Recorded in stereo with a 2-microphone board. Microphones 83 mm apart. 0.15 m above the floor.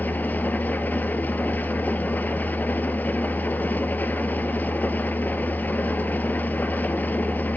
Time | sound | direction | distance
0.0 | an engine running | 20° left (ahead or behind) | 0.9 m